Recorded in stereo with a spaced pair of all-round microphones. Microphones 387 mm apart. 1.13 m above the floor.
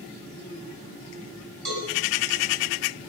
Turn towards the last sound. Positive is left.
turn(degrees=-75)  # may be behind; listen again after turning